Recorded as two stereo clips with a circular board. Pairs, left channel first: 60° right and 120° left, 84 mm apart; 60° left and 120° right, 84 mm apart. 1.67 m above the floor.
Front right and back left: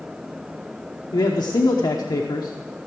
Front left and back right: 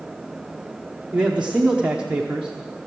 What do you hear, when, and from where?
1.1 s a man speaking: 45° right, 0.9 m